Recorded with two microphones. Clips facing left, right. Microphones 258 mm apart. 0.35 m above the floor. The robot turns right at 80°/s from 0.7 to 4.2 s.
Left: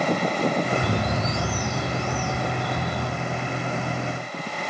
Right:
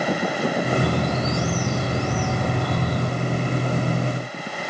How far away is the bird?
About 1.6 m.